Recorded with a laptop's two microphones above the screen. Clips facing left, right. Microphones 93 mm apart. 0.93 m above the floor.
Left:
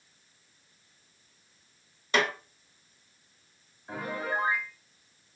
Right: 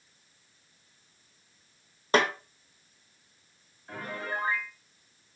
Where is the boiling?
I don't hear boiling.